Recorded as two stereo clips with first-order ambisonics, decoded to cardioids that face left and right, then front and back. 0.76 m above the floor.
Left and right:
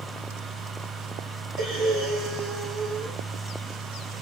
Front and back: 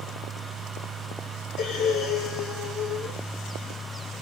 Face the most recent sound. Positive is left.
turn(degrees=-50)